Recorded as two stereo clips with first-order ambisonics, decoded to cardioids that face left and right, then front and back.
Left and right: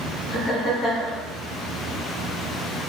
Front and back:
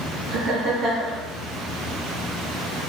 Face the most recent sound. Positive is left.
turn(degrees=150)